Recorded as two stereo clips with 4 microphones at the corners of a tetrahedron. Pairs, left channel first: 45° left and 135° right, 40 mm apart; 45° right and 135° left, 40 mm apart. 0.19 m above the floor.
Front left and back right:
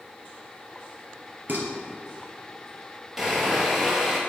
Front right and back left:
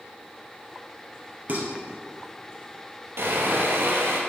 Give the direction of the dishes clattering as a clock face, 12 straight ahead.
6 o'clock.